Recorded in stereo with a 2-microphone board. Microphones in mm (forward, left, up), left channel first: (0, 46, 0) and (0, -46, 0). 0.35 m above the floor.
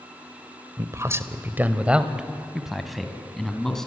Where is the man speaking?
35° right (ahead or behind), 1.1 m; by 3.9 s 5° left (ahead or behind), 3 m.